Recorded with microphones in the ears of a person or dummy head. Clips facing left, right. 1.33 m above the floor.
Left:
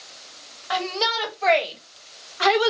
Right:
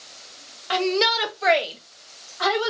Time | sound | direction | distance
0.7 | a shout | 40° right (ahead or behind) | 0.9 m